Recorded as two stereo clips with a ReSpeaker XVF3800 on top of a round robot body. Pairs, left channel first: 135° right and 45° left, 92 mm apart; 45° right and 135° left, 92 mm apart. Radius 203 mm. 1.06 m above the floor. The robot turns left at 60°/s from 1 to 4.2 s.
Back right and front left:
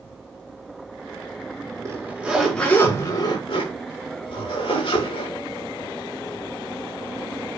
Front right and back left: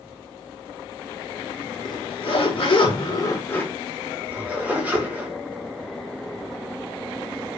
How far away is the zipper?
About 6 m.